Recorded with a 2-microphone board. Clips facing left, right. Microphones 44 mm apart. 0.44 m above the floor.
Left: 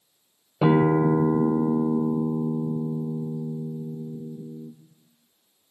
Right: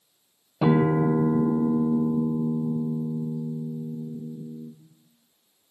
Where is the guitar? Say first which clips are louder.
Left 2 dB; 25° left (ahead or behind), 1.0 m.